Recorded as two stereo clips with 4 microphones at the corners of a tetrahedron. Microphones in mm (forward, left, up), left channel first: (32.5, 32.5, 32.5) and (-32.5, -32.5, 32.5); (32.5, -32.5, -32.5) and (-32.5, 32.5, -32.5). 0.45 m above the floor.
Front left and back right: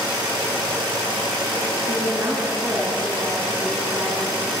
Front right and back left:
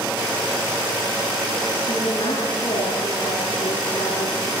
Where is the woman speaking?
80° right, 4.5 m.